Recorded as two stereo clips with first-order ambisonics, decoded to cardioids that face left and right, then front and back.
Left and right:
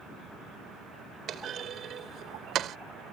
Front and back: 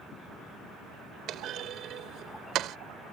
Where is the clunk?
140° right.